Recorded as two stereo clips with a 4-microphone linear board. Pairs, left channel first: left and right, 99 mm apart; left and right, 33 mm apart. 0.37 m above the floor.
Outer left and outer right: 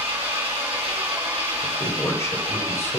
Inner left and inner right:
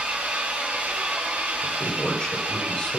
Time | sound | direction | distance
0.0 | an engine running | 70° right (ahead or behind) | 3.5 m
1.6 | a man speaking | 25° left (ahead or behind) | 1.6 m